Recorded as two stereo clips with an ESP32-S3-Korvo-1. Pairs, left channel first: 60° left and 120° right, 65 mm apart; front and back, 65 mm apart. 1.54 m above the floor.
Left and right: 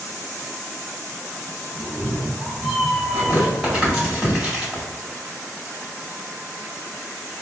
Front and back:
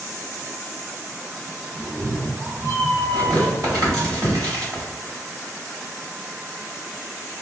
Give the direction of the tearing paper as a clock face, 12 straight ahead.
7 o'clock.